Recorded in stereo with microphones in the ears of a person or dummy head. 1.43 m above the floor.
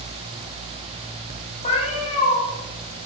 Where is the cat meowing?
35° left (ahead or behind), 6 m.